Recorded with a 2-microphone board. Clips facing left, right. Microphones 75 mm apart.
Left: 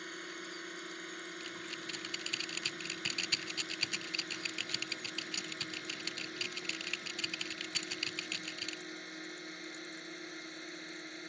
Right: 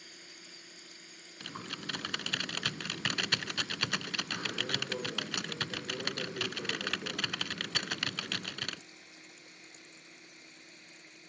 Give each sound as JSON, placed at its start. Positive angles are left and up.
{"t": 0.0, "sound": "a drone", "side_deg": 55}
{"t": 1.4, "sound": "typing on a keyboard", "side_deg": -70}